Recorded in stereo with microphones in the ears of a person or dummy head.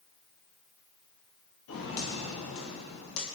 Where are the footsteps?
60° left (ahead or behind), 2 m.